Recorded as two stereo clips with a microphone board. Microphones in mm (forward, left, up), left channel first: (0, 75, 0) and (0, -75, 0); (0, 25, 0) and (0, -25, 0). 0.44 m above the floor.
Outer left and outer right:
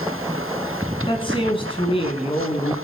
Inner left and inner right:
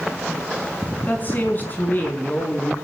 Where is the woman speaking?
35° left (ahead or behind), 4 m; by 2.7 s 45° left (ahead or behind), 4.5 m.